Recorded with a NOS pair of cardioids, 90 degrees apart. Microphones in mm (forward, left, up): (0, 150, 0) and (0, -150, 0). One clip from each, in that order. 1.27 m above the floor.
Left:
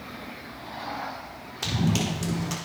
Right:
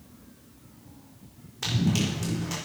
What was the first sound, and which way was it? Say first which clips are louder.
Running footsteps: left 1 dB; 20° left.